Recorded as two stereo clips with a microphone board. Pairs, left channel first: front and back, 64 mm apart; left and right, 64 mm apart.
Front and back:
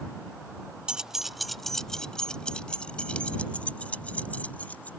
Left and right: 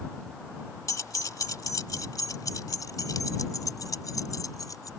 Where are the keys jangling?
105° left; by 4.9 s 65° left.